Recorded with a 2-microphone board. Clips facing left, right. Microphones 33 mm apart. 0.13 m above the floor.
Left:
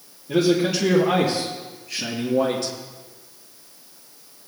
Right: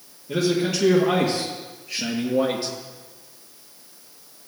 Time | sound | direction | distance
0.3 | a man speaking | 5° left (ahead or behind) | 3.5 m